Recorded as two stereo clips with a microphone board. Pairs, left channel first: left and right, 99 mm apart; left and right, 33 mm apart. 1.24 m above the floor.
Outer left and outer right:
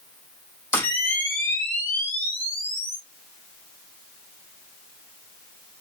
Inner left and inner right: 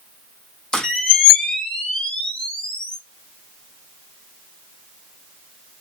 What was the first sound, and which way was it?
A camera shutter, 20° left (ahead or behind).